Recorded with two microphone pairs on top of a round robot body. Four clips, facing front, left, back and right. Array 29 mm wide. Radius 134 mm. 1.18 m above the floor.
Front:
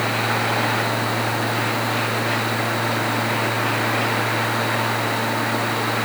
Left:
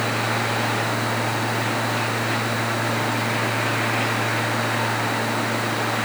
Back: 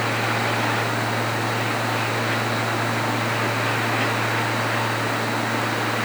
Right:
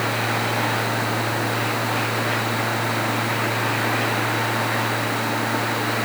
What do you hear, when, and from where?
Only background noise.